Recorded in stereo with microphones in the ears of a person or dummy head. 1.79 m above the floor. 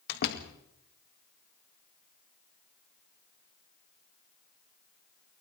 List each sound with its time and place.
0.1 s a door slam: 60° left (ahead or behind), 2 m